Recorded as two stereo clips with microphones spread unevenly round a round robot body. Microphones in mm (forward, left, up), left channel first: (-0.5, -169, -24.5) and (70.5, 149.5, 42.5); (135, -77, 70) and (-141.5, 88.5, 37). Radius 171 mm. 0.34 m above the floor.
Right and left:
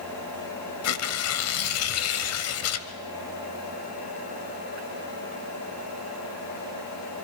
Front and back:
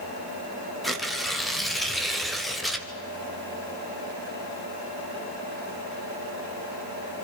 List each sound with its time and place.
0.8 s tearing paper: 125° right, 0.9 m